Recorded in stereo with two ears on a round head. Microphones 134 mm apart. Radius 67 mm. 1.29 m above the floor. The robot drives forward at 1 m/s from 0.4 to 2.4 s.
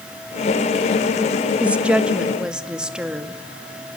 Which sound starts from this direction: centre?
A woman speaking, at 1.6 s.